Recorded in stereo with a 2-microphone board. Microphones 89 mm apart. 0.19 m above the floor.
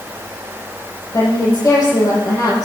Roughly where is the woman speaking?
Left.